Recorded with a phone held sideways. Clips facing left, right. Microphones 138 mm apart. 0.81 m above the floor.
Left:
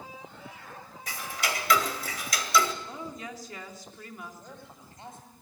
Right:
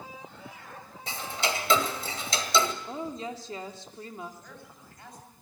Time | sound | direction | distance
1.1 | ticking | 30° right (ahead or behind) | 1.9 m
2.8 | a woman speaking | 30° right (ahead or behind) | 2 m
4.4 | a man speaking | 25° left (ahead or behind) | 6 m